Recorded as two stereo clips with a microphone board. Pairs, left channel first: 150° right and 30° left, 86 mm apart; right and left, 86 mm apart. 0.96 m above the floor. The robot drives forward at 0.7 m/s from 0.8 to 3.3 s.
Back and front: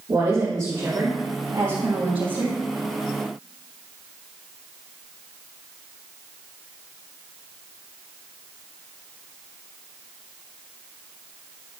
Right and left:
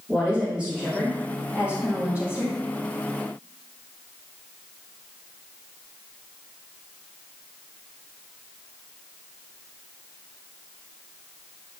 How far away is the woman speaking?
About 2.5 m.